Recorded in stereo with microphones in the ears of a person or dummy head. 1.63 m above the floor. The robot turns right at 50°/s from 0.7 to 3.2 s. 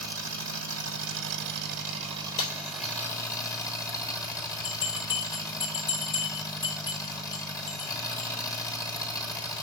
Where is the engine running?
105° right, 2 m; by 9.6 s 20° left, 2 m.